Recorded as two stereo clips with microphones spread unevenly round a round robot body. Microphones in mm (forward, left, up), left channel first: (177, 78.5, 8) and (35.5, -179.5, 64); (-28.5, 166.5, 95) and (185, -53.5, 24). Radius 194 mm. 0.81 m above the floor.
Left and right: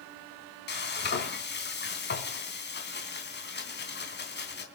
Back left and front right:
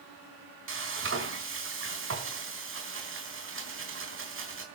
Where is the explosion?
No explosion in this recording.